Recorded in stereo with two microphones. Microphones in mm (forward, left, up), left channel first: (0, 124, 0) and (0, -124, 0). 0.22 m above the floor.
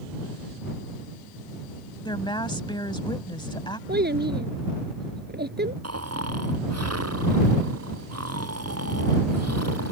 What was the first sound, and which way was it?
A woman speaking, 20° left (ahead or behind).